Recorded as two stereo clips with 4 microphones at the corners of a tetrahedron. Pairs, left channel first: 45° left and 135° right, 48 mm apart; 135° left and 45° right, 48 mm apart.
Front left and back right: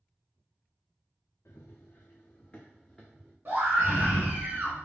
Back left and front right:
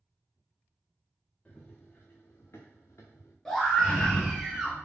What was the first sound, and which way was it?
Running footsteps, 70° left.